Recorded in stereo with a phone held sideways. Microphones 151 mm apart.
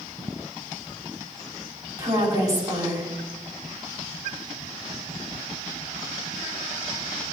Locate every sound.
2.0 s a woman speaking: 25° right (ahead or behind), 5 m